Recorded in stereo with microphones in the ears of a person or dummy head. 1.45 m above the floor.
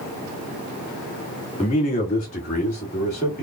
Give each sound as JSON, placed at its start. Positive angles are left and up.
{"t": 1.6, "sound": "a man speaking", "side_deg": 30, "distance_m": 1.9}